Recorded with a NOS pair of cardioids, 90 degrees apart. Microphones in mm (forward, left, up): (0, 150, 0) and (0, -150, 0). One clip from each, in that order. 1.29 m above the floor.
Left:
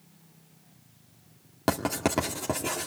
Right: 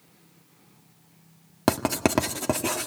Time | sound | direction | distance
1.7 | writing | 35° right | 1.8 m